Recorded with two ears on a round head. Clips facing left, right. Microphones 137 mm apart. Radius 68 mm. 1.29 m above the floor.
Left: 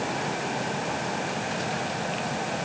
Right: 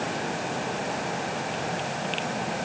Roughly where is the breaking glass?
I don't hear breaking glass.